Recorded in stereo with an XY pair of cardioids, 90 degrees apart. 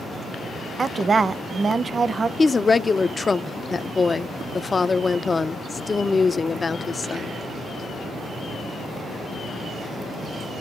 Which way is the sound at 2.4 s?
30° left.